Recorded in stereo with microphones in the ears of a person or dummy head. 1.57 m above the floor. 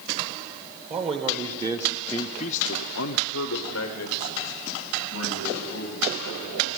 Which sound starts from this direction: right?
A man speaking, at 0.9 s.